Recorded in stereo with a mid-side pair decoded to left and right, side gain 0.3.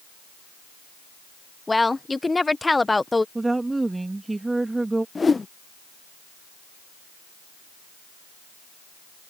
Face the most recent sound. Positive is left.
turn(degrees=40)